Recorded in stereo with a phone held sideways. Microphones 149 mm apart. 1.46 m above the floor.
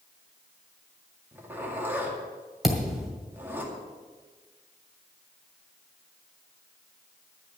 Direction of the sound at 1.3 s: 15° right (ahead or behind).